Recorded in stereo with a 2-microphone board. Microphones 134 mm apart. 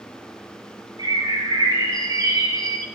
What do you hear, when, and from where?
1.0 s a bird: 30° right (ahead or behind), 1.7 m